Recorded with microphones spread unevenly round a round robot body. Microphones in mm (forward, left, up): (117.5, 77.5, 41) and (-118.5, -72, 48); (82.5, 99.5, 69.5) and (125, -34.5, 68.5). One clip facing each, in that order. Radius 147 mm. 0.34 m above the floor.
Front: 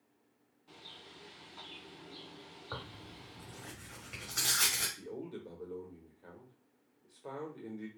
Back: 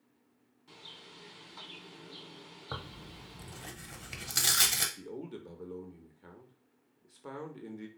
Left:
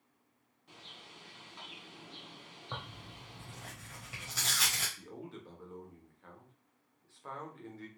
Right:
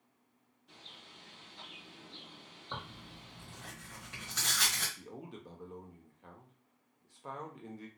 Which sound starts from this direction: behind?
Tearing paper, at 2.7 s.